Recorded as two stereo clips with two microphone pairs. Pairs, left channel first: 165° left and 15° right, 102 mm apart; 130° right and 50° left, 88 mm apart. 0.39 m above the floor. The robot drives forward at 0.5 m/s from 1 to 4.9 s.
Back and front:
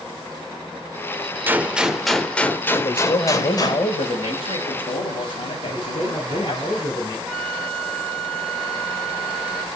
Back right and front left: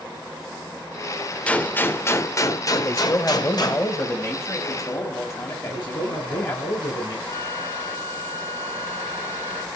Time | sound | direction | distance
1.5 | a gunshot | 70° right | 0.9 m
2.8 | a man speaking | straight behind | 1.5 m
5.7 | a man speaking | 140° right | 5.5 m
7.3 | a flute | 95° right | 0.9 m